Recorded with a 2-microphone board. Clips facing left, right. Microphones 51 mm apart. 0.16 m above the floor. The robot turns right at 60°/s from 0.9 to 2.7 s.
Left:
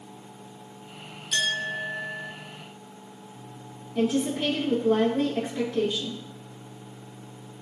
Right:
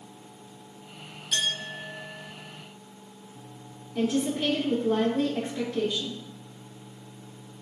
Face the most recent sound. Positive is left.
turn(degrees=10)  # may be behind; listen again after turning